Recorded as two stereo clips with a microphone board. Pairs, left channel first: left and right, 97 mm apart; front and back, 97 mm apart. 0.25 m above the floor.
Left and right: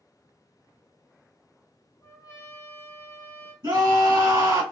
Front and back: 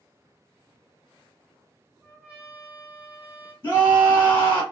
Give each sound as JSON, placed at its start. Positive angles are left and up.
{"t": 2.0, "sound": "a trumpet", "azimuth_deg": 115, "distance_m": 1.8}
{"t": 3.6, "sound": "a scream", "azimuth_deg": -60, "distance_m": 1.8}